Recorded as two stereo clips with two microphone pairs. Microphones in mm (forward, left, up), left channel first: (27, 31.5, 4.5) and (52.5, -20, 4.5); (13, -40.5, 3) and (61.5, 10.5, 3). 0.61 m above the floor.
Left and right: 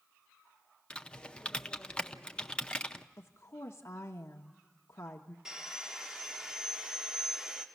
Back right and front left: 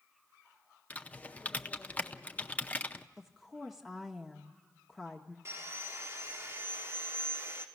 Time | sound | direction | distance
0.9 | typing on a keyboard | straight behind | 0.6 m
3.2 | a woman speaking | 135° left | 0.8 m
5.5 | sawing | 10° left | 1.5 m